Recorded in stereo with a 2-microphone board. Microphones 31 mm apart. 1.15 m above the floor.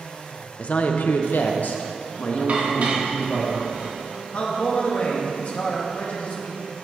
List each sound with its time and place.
0.6 s a woman speaking: 40° left (ahead or behind), 0.8 m; by 3.5 s 35° left (ahead or behind), 2.5 m
2.5 s dishes clattering: 45° right (ahead or behind), 1.3 m
4.3 s a man speaking: 45° left (ahead or behind), 1.6 m